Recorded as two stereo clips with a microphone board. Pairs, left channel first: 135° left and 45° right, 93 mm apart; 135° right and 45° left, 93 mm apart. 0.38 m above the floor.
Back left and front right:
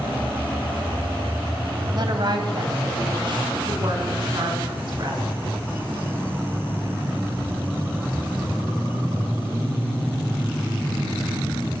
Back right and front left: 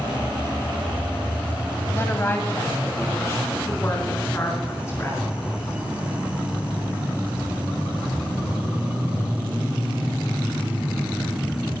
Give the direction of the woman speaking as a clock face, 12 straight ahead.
2 o'clock.